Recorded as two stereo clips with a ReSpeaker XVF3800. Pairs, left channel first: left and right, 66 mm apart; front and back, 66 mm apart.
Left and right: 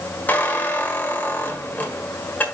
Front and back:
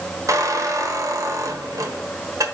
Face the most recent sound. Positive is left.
turn(degrees=155)